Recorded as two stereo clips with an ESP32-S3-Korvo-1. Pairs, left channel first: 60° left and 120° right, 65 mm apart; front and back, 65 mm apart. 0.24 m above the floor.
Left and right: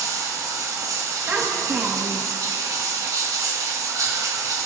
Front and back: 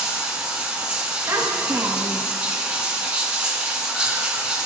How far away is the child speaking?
About 1.0 m.